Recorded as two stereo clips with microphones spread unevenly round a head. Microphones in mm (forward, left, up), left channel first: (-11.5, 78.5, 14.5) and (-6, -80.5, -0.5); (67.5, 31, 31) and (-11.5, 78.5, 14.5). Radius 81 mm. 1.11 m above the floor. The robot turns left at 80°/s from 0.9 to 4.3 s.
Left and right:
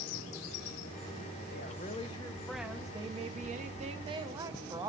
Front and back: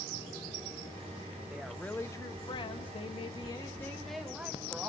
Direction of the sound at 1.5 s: 80° left.